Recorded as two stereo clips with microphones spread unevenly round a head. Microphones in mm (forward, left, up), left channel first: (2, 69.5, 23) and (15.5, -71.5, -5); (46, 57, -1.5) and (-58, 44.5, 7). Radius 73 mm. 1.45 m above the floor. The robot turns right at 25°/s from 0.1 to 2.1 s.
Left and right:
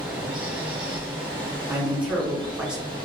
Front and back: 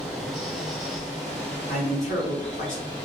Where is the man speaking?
10° right, 1.2 m; by 2.9 s straight ahead, 1.2 m.